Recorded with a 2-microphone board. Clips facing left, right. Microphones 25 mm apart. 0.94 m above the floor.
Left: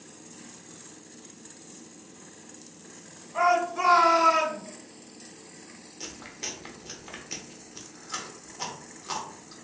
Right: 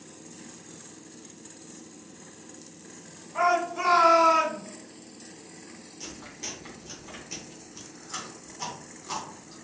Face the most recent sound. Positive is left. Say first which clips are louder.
# left 2 dB
turn(degrees=25)  # may be behind; listen again after turning